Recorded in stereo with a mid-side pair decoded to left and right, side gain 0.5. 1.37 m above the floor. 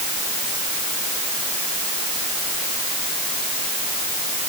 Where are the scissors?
I don't hear scissors.